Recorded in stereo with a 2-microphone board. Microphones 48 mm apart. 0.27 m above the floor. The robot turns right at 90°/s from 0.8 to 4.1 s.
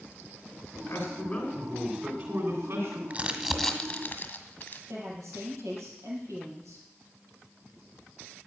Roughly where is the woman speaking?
Right.